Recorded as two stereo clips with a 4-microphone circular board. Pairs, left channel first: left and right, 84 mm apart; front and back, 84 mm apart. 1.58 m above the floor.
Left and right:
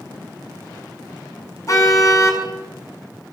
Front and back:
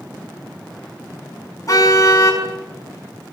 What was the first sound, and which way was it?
A car horn, 45° left.